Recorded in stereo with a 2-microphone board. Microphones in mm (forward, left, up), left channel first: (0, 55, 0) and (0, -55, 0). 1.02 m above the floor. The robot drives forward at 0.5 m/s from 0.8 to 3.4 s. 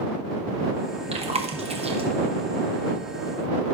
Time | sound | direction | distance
1.1 | chewing | 65° right (ahead or behind) | 0.8 m